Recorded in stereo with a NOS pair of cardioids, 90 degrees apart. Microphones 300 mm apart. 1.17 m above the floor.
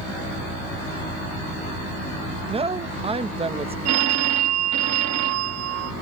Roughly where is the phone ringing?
Ahead right.